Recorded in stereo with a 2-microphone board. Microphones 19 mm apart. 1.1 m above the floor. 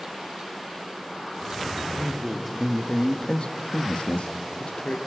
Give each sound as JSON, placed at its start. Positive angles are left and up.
{"t": 1.8, "sound": "a man speaking", "side_deg": -15, "distance_m": 3.0}